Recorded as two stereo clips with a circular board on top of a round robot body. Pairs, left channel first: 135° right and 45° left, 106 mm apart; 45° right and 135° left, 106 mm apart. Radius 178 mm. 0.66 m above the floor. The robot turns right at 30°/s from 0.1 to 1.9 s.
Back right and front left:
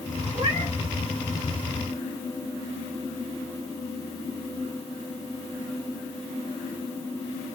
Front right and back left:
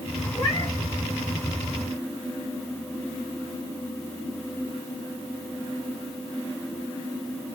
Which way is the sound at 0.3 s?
Straight ahead.